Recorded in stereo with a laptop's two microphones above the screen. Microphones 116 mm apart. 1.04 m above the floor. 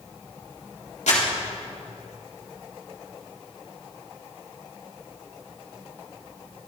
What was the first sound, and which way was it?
Crumpling, 80° left.